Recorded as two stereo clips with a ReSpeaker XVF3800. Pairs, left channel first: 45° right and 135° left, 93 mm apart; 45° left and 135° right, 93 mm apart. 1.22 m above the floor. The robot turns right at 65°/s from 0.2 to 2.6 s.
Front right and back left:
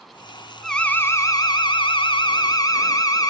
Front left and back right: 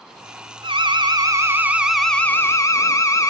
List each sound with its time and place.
0.6 s an alarm: 130° right, 2 m; by 3.3 s 5° right, 2 m